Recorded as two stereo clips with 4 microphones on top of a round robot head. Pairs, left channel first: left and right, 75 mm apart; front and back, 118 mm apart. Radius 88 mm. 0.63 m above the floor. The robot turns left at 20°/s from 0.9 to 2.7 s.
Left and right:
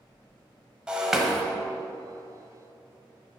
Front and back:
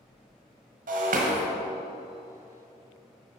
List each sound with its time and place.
0.9 s breaking glass: 170° right, 1.6 m; by 1.4 s straight behind, 1.6 m